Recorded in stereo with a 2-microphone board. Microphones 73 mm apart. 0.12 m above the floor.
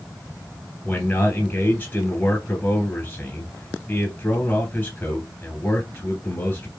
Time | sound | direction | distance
0.8 | a man speaking | 30° left (ahead or behind) | 2.5 m